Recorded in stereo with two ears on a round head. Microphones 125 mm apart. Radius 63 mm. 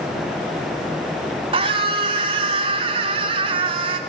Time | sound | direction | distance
1.5 | a scream | 40° right (ahead or behind) | 3 m